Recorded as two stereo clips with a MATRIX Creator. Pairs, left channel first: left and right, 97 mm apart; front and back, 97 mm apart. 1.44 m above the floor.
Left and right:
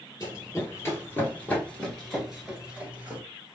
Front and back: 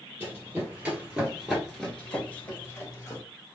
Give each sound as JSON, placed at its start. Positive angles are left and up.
{"t": 0.2, "sound": "running footsteps", "azimuth_deg": 125, "distance_m": 1.9}